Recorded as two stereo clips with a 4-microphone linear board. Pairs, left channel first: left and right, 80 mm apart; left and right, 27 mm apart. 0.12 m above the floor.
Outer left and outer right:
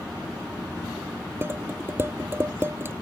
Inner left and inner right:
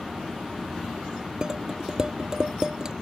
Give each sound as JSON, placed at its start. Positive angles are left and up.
{"t": 1.4, "sound": "dishes clattering", "side_deg": -30}